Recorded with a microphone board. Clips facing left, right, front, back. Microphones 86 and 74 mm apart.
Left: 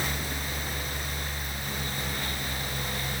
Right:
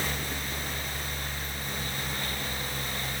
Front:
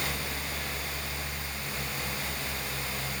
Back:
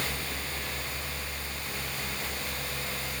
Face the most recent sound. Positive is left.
No sound to turn to.